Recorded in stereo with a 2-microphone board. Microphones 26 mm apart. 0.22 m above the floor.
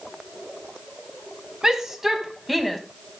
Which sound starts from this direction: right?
A shout, at 1.6 s.